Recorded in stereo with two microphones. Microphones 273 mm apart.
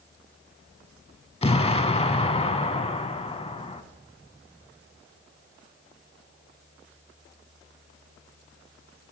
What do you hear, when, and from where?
1.4 s an explosion: 20° left (ahead or behind), 0.6 m